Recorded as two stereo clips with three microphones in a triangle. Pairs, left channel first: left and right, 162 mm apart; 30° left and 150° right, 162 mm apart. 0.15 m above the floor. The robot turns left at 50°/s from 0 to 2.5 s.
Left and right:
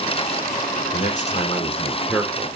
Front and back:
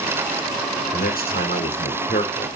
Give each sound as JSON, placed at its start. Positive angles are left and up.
{"t": 0.9, "sound": "a man speaking", "azimuth_deg": 65, "distance_m": 6.5}